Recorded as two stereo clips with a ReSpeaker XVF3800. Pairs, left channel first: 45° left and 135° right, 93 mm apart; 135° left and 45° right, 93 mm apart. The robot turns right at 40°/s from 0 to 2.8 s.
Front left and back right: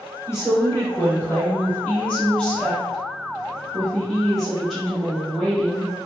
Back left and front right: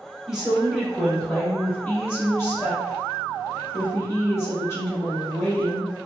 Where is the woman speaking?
30° left, 1.5 m; by 5.9 s 130° left, 1.5 m.